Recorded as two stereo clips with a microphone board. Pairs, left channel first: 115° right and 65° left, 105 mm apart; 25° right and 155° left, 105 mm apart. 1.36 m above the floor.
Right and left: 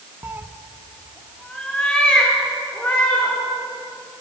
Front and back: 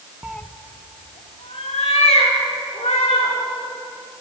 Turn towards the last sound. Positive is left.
turn(degrees=-35)